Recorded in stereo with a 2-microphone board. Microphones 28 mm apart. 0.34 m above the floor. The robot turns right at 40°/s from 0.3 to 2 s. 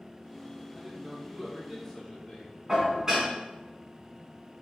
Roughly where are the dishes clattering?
Centre.